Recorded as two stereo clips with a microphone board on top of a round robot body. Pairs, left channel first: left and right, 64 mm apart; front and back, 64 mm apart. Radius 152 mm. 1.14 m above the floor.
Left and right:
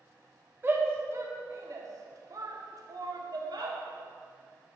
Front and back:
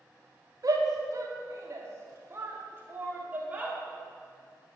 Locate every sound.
0.6 s a shout: 145° right, 3.5 m; by 3.8 s 110° right, 3.5 m